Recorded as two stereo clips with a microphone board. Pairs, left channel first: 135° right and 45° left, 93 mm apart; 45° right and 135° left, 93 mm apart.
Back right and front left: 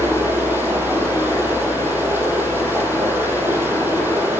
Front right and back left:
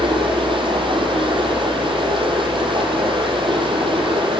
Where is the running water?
110° left, 6 m.